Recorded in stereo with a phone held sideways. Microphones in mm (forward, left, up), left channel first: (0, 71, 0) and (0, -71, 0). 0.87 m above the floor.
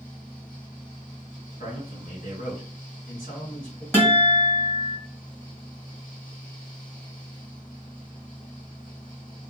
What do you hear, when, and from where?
0.0 s a fan: 65° left (ahead or behind), 1.3 m
1.6 s a man speaking: 60° left (ahead or behind), 1.7 m
3.9 s a guitar: 10° left (ahead or behind), 1.5 m